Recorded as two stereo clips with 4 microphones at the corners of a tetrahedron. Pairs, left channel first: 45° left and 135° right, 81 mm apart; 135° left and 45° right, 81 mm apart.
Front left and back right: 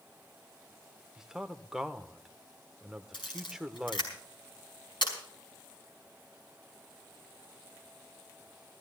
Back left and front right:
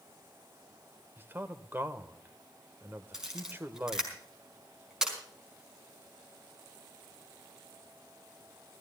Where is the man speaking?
60° right, 1.0 m.